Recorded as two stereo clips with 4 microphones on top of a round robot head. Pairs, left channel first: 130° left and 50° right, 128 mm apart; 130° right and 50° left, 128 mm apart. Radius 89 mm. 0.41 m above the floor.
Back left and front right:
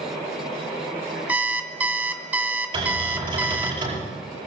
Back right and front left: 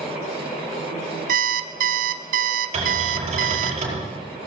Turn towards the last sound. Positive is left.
turn(degrees=5)